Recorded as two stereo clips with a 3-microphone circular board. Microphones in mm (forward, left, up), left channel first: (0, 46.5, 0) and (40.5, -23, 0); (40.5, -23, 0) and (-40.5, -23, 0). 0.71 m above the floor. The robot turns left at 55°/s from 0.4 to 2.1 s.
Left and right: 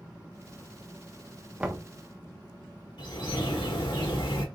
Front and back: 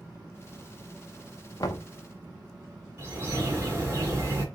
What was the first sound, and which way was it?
Knocking, 15° left.